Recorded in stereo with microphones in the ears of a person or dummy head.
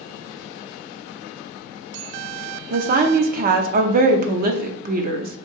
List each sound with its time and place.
2.7 s a woman speaking: 45° right (ahead or behind), 0.6 m